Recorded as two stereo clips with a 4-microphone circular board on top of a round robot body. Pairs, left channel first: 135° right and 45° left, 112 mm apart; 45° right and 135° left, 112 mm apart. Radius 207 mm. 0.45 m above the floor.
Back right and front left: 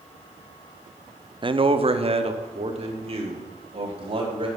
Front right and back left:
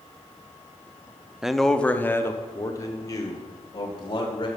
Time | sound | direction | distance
1.4 | a man speaking | 50° left | 0.8 m